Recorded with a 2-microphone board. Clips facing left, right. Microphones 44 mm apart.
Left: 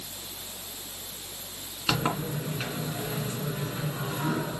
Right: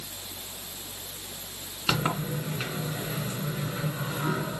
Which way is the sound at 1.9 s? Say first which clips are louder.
Even; centre (ahead or behind).